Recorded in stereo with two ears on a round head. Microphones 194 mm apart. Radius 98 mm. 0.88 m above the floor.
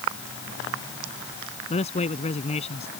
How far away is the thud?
I don't hear a thud.